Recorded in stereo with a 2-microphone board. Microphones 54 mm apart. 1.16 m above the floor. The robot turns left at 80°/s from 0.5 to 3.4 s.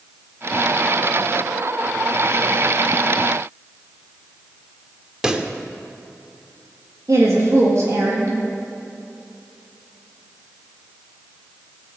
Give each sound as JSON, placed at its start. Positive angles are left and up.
{"t": 5.2, "sound": "a pop", "side_deg": -15, "distance_m": 0.8}
{"t": 7.1, "sound": "a woman speaking", "side_deg": -65, "distance_m": 1.7}